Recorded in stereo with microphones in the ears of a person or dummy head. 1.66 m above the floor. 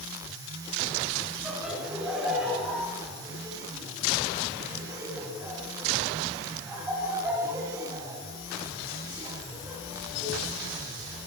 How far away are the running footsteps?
I don't hear running footsteps.